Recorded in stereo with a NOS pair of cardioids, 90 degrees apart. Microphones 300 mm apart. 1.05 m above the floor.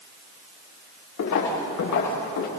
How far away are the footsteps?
About 8.5 m.